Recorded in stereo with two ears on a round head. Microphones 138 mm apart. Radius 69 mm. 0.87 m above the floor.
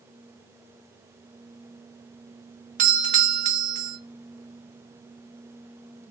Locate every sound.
2.8 s a doorbell: 50° right (ahead or behind), 1.5 m